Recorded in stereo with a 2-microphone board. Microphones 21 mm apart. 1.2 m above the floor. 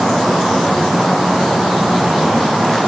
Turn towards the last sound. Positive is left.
No sound to turn to.